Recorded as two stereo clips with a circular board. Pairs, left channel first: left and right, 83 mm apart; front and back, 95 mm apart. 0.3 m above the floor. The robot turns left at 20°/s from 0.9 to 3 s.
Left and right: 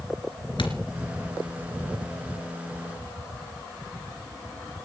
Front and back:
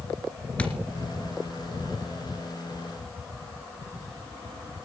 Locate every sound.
0.6 s a thud: 80° left, 2.5 m